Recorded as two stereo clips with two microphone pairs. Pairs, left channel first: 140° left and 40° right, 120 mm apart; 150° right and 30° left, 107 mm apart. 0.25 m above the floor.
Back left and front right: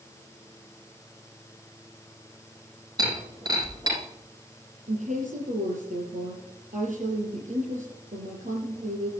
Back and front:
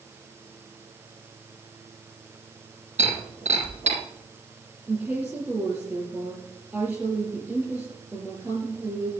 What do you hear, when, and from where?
3.0 s breaking glass: 20° left, 6 m
4.9 s a woman speaking: 40° right, 7 m